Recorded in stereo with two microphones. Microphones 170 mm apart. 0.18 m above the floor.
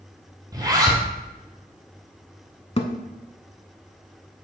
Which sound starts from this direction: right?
A zipper, at 0.5 s.